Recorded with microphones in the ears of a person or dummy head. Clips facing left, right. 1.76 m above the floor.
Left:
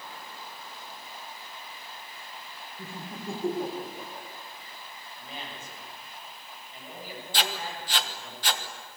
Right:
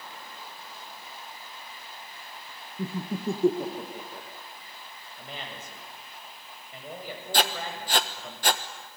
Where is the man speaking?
60° right (ahead or behind), 8 m.